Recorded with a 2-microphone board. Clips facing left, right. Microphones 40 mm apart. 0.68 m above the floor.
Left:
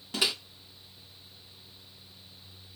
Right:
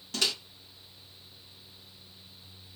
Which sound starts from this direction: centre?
A microwave, at 0.1 s.